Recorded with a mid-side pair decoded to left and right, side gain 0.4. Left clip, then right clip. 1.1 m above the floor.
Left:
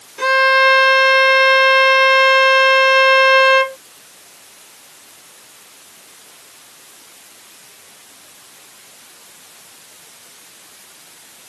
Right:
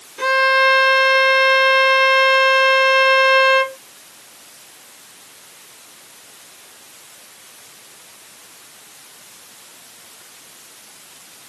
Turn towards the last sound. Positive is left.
turn(degrees=20)